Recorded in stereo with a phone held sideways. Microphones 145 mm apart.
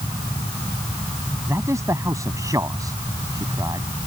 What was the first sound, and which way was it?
A man speaking, 20° right (ahead or behind).